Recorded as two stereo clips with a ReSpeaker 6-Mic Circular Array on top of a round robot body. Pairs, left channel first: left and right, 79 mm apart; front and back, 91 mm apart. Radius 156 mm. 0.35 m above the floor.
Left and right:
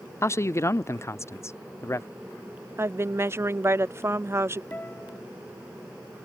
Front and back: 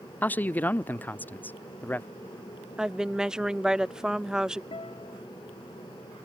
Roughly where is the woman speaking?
Right.